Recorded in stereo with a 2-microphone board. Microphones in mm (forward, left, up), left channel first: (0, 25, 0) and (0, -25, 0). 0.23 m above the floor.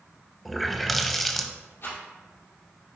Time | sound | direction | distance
0.5 | a running tap | centre (ahead or behind) | 0.6 m
1.8 | a rattle | 45° left (ahead or behind) | 2.5 m